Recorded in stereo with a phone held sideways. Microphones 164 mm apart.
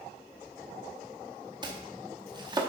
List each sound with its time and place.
1.6 s chopping: 25° right (ahead or behind), 0.9 m